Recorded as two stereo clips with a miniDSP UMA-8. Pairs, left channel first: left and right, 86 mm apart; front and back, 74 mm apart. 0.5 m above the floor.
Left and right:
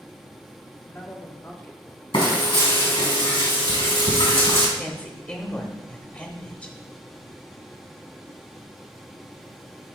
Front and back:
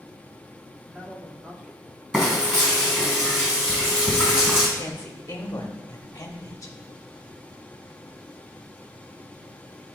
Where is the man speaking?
125° left, 1.3 m.